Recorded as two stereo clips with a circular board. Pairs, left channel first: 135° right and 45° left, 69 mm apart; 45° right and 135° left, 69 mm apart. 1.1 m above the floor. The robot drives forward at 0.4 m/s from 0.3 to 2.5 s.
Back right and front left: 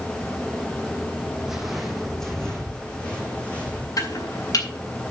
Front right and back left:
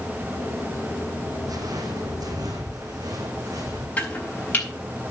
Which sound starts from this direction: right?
Chopping, at 4.0 s.